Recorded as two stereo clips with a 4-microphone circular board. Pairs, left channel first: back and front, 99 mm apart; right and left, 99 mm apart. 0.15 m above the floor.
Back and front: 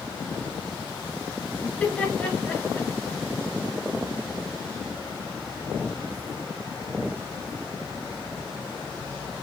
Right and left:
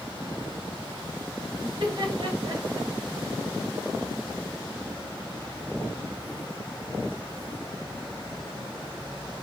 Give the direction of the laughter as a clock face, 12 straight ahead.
9 o'clock.